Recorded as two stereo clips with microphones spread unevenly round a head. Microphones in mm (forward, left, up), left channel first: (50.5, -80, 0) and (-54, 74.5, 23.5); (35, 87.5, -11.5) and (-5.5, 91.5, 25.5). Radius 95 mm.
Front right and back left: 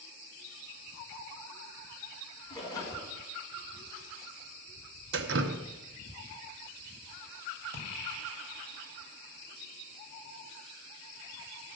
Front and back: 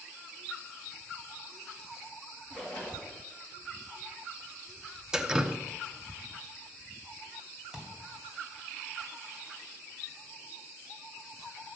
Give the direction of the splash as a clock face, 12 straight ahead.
4 o'clock.